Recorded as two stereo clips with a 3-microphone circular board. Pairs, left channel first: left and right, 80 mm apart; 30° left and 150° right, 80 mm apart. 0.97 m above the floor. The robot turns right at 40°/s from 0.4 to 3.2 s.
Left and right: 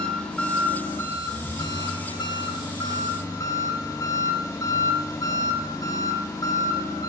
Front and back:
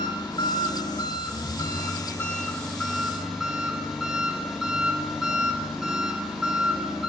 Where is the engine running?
20° left, 2.5 m; by 7.1 s 130° left, 2.5 m.